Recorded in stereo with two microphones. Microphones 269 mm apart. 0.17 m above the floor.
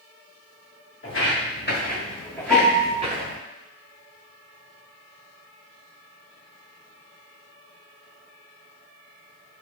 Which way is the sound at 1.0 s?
55° left (ahead or behind).